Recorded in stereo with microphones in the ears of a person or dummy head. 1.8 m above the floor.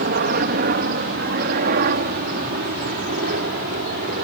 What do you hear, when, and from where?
0.0 s a helicopter: 55° right (ahead or behind); by 4.2 s 50° right (ahead or behind)